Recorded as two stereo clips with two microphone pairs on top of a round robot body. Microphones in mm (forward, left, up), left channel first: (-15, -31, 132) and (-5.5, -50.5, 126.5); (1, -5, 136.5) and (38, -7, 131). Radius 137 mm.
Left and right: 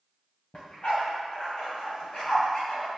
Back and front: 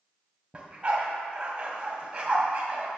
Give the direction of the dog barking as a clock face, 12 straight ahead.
10 o'clock.